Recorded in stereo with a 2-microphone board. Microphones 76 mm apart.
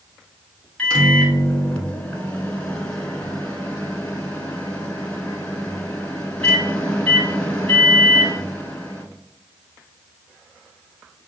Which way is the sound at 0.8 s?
15° left (ahead or behind).